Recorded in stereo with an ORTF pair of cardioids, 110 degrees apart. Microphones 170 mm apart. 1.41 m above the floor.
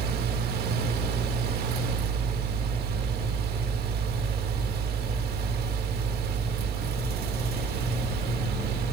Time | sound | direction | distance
0.0 | a fan | 70° right | 2 m